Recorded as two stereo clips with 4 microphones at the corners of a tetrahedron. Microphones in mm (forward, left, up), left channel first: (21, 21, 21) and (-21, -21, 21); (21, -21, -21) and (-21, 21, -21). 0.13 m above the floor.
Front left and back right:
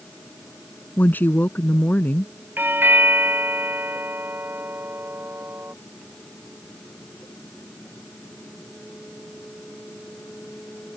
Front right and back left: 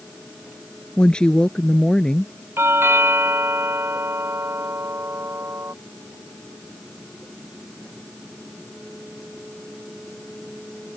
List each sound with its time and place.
1.0 s a woman speaking: 20° left
2.6 s a doorbell: 175° left